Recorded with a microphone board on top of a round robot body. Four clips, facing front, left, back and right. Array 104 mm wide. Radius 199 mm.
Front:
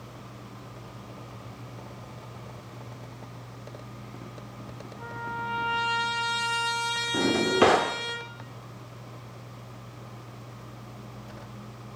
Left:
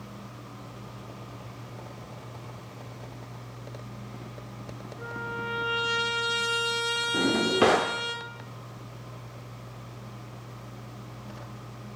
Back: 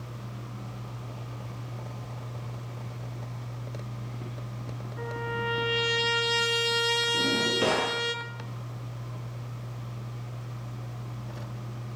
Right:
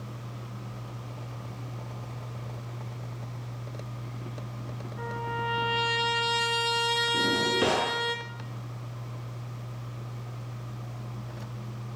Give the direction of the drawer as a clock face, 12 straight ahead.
11 o'clock.